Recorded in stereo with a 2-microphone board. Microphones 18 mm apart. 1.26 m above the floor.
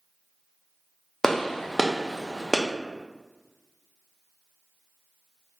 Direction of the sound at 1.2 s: 30° left (ahead or behind).